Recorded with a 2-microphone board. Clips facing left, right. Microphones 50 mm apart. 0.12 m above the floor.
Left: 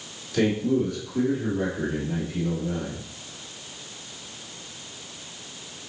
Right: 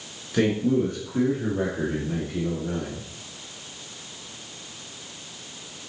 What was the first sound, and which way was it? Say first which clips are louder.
A man speaking: right 1 dB; 20° right (ahead or behind).